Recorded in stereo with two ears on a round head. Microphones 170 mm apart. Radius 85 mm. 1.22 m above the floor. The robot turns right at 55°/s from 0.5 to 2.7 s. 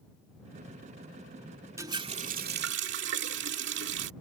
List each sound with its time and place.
1.8 s a running tap: 165° right; by 4.1 s 110° right